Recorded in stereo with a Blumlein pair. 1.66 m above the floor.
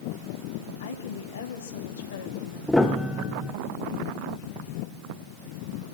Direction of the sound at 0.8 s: 65° left.